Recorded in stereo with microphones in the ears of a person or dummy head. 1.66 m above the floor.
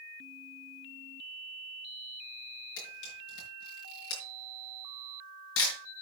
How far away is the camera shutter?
About 5.5 m.